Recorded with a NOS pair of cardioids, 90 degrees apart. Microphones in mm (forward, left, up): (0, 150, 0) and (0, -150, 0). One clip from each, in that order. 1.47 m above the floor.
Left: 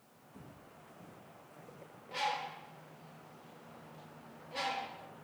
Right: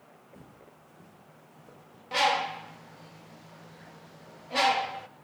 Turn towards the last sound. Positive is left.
turn(degrees=-60)